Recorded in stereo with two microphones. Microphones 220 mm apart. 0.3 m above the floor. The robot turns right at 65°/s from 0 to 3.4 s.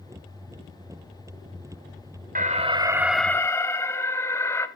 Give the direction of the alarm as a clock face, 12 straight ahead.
2 o'clock.